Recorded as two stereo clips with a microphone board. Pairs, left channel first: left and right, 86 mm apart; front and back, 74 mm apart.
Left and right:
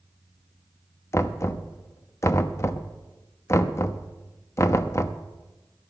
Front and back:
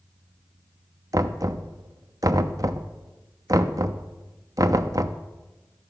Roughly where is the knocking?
Behind left.